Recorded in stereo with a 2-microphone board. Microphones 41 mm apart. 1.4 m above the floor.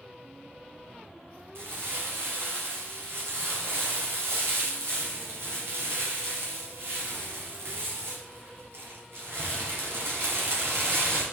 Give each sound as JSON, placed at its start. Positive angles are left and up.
{"t": 1.6, "sound": "crumpling", "side_deg": -75, "distance_m": 3.5}